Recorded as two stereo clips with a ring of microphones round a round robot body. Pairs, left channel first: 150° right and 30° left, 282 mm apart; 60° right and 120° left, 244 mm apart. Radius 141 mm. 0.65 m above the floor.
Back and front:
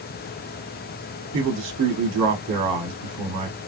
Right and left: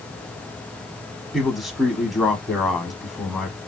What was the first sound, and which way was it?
A man speaking, 30° left.